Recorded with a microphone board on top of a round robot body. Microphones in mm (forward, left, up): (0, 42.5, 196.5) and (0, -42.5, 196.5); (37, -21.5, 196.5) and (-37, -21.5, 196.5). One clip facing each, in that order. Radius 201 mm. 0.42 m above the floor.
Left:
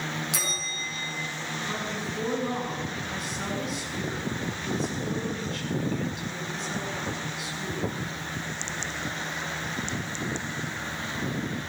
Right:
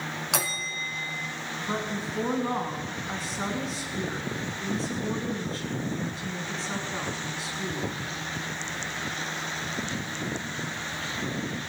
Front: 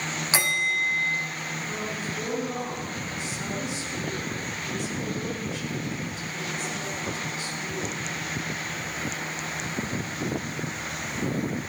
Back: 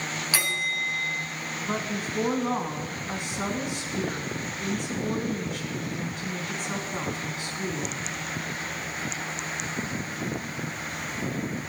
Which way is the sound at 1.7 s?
145° right.